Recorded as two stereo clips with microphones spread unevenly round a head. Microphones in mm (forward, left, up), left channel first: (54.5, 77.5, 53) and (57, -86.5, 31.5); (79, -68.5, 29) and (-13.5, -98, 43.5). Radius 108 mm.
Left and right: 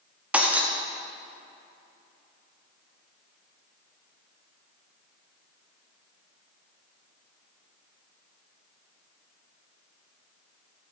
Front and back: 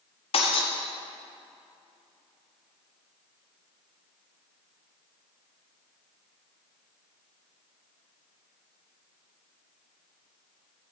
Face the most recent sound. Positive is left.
turn(degrees=-5)